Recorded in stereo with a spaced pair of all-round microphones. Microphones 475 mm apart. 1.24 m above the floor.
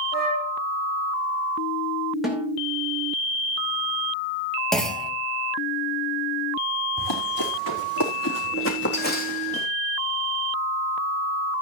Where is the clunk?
Centre (ahead or behind), 1.9 m.